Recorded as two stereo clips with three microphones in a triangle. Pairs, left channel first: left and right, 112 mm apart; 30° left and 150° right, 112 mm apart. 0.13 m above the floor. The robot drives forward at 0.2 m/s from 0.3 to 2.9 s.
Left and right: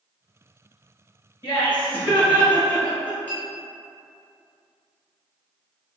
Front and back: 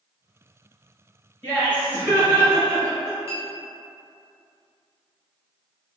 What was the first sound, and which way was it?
Laughter, 150° left.